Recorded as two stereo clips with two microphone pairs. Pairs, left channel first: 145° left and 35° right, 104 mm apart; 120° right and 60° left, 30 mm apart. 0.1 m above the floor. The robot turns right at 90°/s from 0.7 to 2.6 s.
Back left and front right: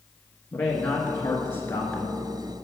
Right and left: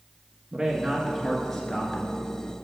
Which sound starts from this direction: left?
A man speaking, at 0.5 s.